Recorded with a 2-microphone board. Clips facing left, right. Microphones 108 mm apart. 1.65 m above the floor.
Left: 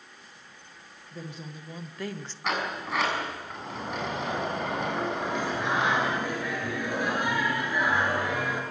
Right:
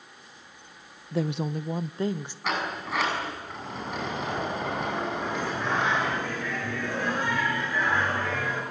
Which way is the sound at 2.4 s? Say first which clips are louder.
Even; centre (ahead or behind).